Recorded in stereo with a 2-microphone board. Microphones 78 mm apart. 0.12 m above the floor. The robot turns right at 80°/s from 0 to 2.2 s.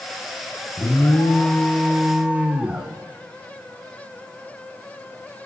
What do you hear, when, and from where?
0.8 s an alarm: 90° left, 1.2 m; by 2.9 s 155° right, 1.2 m